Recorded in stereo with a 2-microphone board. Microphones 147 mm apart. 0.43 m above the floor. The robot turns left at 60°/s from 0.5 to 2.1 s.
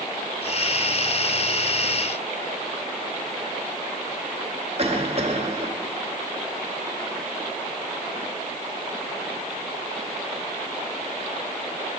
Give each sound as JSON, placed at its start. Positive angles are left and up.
{"t": 4.8, "sound": "a cough", "side_deg": -45, "distance_m": 1.7}